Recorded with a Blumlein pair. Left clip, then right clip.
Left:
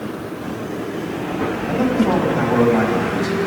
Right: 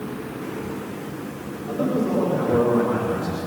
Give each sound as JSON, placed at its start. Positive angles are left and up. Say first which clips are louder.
{"t": 1.7, "sound": "a man speaking", "louder": "left 4 dB", "azimuth_deg": 70, "distance_m": 4.0}